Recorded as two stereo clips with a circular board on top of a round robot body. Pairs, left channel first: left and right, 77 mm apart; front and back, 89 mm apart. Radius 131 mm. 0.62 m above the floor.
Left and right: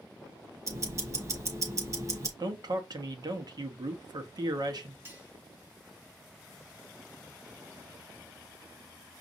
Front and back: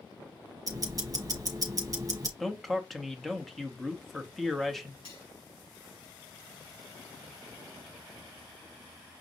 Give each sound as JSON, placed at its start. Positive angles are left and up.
{"t": 0.7, "sound": "ticking", "azimuth_deg": -135, "distance_m": 1.2}
{"t": 2.4, "sound": "a man speaking", "azimuth_deg": -90, "distance_m": 1.1}
{"t": 5.0, "sound": "cutlery clinking", "azimuth_deg": -25, "distance_m": 2.5}